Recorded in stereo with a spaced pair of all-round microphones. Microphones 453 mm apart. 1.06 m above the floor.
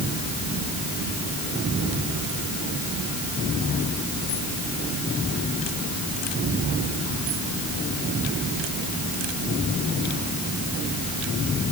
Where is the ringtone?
I don't hear a ringtone.